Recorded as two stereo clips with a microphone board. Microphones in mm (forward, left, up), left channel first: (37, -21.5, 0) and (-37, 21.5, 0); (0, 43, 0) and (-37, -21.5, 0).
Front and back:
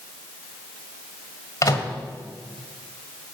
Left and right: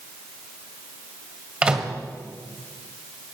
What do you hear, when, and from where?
1.6 s a microwave: 55° right, 1.7 m